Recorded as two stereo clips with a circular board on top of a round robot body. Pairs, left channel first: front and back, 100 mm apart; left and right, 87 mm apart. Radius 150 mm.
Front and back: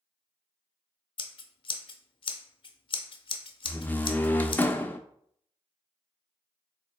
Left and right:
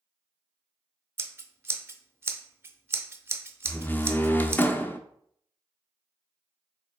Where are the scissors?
30° right, 0.6 m.